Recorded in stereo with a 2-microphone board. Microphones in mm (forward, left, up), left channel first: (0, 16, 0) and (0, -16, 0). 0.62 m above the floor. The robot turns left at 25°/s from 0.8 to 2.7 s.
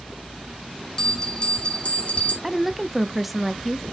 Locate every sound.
1.0 s a bell: 160° left, 2 m; by 2.3 s 125° left, 2 m
2.4 s a woman speaking: 5° right (ahead or behind), 0.6 m